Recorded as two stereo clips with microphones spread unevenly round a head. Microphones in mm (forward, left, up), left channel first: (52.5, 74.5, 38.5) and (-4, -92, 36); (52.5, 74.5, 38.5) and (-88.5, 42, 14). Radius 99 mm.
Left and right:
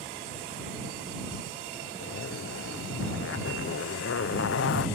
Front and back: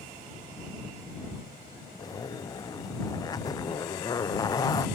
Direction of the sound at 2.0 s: 70° left.